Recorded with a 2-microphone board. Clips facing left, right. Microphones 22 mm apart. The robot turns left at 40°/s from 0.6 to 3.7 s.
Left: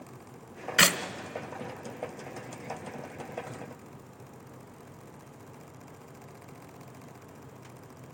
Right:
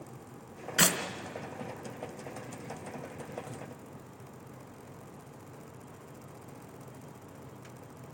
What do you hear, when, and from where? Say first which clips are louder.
0.8 s a clap: left 5 dB; 25° left (ahead or behind), 0.9 m